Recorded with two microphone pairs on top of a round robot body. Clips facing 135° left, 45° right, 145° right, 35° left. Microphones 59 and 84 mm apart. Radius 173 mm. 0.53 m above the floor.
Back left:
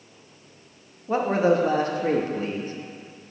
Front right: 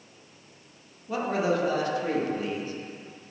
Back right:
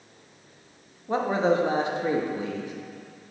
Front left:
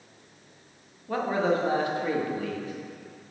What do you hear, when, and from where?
1.1 s a man speaking: 160° left, 1.1 m